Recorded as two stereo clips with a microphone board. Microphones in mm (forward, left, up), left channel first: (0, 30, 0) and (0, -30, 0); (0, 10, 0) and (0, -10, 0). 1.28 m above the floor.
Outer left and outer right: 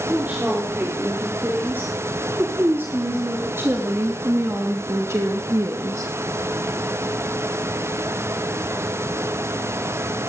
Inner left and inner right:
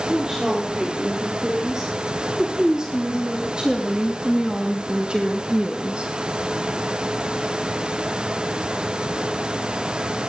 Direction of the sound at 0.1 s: 30° right (ahead or behind).